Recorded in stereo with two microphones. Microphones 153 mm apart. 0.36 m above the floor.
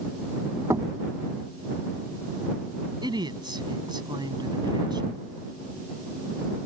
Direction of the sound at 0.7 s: 20° right (ahead or behind).